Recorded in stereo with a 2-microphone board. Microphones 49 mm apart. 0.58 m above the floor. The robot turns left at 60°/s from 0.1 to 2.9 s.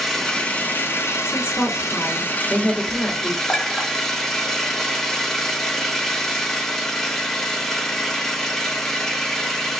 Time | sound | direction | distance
0.0 | an engine running | 175° left | 0.8 m
1.2 | a woman speaking | 95° left | 1.9 m
3.5 | a clink | 10° left (ahead or behind) | 1.2 m